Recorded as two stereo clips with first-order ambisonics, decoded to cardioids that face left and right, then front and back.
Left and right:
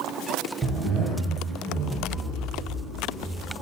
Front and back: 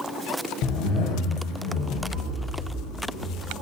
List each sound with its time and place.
0.6 s a zipper: 10° right, 1.0 m